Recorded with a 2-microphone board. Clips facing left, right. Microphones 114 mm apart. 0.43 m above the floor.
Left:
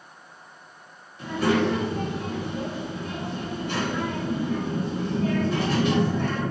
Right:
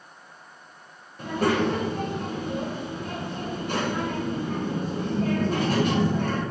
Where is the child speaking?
45° right (ahead or behind), 1.3 m.